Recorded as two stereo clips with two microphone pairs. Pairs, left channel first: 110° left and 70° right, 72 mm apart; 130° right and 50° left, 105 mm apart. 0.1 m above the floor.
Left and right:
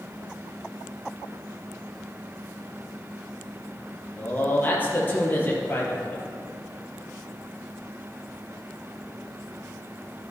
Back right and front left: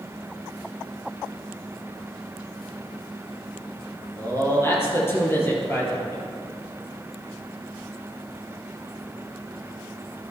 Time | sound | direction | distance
4.2 | a man speaking | 165° left | 2.5 m